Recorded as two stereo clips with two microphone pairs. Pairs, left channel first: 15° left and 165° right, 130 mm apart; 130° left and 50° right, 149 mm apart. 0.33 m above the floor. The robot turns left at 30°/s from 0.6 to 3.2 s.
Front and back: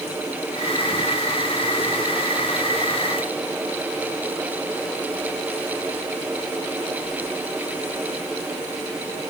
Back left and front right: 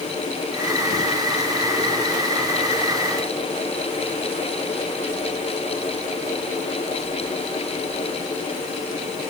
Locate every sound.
Only background noise.